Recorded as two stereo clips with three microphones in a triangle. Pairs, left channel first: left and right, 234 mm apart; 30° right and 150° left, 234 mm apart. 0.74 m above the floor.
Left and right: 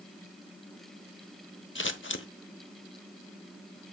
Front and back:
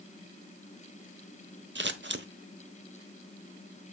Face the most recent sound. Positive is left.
turn(degrees=115)